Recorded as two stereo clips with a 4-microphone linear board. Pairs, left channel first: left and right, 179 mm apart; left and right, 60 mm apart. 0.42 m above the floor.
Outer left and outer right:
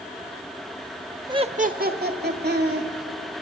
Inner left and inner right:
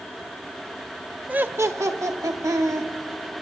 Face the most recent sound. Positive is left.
turn(degrees=-70)  # may be behind; listen again after turning